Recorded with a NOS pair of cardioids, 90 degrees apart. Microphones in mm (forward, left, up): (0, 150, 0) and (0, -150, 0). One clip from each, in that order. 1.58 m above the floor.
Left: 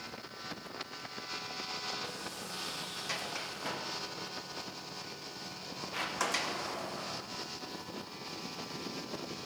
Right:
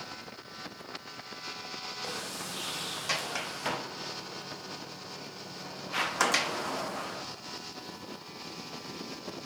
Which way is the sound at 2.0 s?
40° right.